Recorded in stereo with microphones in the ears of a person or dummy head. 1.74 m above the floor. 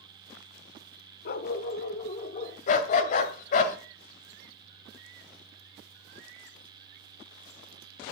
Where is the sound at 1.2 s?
45° left (ahead or behind), 1.6 m; by 2.6 s 35° left (ahead or behind), 2.5 m.